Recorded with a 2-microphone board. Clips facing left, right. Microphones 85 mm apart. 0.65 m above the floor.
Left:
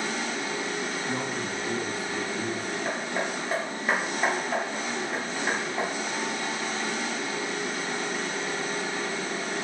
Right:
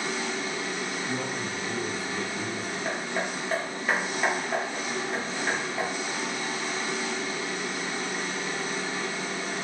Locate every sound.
0.0 s an engine running: 65° left (ahead or behind), 0.9 m
1.1 s a man speaking: 35° left (ahead or behind), 0.8 m
2.9 s hammering: 15° left (ahead or behind), 1.0 m